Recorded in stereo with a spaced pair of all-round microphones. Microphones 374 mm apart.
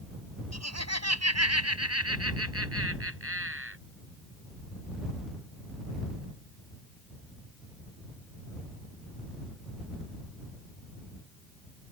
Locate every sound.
0.5 s laughter: 45° right (ahead or behind); by 3.8 s 35° right (ahead or behind)